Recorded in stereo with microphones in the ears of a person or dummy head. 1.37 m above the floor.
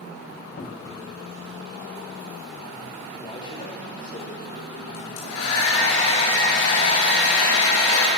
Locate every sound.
0.6 s a cupboard door: 45° left (ahead or behind), 2.5 m
3.2 s a man speaking: 30° left (ahead or behind), 6 m
4.9 s a hair dryer: 80° left, 8 m